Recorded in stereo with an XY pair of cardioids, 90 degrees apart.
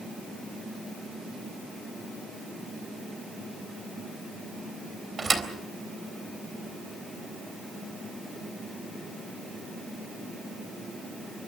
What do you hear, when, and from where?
5.2 s a thud: 35° right, 3.5 m